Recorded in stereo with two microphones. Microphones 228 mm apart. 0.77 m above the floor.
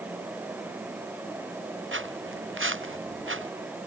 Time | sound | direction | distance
1.9 | footsteps | 60° right (ahead or behind) | ?